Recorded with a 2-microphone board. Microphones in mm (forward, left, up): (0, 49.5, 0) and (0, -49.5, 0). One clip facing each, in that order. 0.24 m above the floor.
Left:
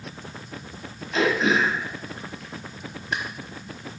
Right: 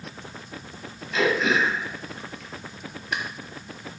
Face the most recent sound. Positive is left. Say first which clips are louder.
# left 1 dB
turn(degrees=35)  # may be behind; listen again after turning